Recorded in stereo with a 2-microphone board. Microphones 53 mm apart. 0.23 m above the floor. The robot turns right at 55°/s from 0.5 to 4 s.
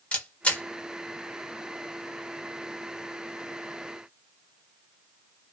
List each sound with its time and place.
0.1 s a camera shutter: 25° left (ahead or behind), 0.9 m; by 0.6 s 30° left (ahead or behind), 0.9 m